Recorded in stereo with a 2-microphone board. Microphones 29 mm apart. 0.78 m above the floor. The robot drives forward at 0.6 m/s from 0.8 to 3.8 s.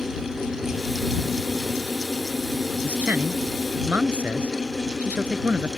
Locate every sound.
2.8 s a man speaking: 85° right; by 5.7 s 80° right